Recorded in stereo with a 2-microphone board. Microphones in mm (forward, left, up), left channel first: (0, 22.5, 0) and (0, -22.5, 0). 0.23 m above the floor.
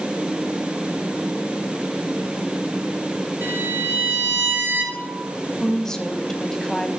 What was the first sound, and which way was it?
A violin, 55° right (ahead or behind).